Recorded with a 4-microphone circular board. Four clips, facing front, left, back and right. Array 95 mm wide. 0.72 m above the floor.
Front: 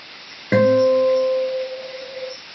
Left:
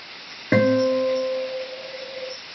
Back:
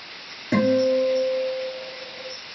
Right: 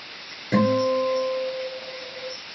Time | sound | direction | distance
0.5 | a guitar | 50° left | 2 m